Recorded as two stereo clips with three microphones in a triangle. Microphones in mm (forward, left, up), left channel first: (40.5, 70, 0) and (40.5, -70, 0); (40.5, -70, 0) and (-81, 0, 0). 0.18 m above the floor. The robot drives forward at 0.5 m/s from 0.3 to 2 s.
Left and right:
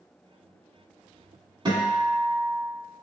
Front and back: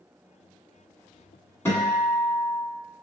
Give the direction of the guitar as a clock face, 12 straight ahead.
3 o'clock.